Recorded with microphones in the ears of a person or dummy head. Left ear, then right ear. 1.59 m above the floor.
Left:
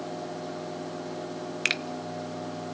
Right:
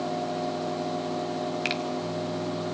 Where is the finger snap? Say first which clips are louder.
Left 4 dB; 25° left (ahead or behind), 0.7 m.